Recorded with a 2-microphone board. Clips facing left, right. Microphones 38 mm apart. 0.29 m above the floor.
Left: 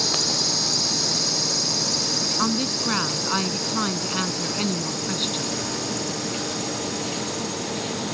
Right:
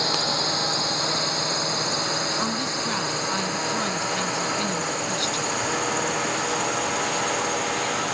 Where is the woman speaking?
15° left (ahead or behind).